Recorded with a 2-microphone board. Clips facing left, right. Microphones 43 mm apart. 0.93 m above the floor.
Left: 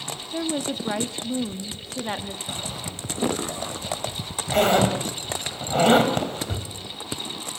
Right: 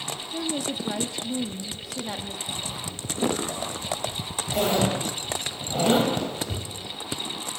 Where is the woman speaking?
45° left (ahead or behind), 1.4 m.